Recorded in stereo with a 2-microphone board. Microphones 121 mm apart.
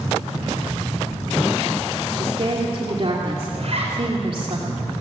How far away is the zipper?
About 6 m.